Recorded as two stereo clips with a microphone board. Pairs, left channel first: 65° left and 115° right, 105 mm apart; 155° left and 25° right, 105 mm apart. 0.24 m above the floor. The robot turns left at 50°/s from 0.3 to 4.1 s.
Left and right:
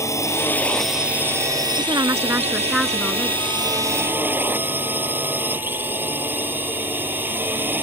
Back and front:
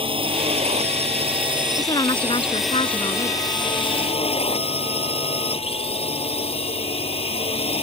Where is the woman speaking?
150° right; by 3.4 s 125° left.